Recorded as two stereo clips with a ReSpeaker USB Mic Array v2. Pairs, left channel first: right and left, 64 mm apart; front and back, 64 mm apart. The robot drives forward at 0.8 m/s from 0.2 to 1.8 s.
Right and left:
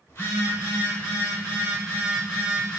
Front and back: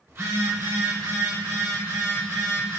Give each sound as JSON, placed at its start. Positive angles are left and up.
{"t": 0.1, "sound": "a phone buzzing", "azimuth_deg": -140, "distance_m": 1.5}